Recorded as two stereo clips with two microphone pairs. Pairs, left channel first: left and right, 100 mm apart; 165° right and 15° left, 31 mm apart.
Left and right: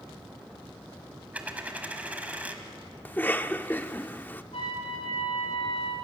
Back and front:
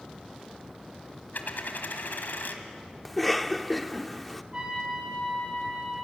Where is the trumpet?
70° left, 8.5 m.